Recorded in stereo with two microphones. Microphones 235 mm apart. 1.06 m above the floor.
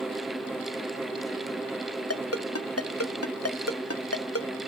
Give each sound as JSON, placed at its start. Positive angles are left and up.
{"t": 2.1, "sound": "a ringtone", "side_deg": 85, "distance_m": 0.9}